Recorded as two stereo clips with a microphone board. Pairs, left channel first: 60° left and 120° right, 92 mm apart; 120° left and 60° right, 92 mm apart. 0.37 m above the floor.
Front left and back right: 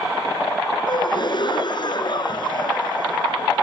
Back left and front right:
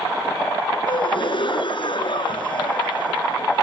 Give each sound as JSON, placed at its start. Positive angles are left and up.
{"t": 0.9, "sound": "a gasp", "azimuth_deg": 95}